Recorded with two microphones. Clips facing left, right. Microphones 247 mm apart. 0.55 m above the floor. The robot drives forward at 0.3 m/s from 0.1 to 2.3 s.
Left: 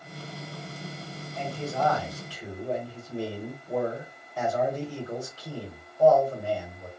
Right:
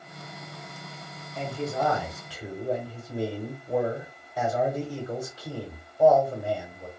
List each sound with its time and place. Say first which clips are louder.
1.4 s a man speaking: right 2 dB; 15° right (ahead or behind), 1.0 m; by 6.9 s 10° right (ahead or behind), 1.2 m